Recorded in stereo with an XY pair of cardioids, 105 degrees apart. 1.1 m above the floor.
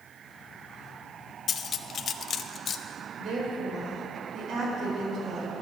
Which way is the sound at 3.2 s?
65° right.